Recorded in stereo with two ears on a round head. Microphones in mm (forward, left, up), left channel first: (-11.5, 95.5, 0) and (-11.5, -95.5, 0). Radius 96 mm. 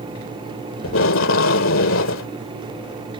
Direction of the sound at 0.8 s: 65° left (ahead or behind).